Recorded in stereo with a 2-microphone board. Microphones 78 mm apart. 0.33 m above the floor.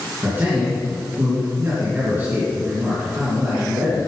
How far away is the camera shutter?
No camera shutter in this recording.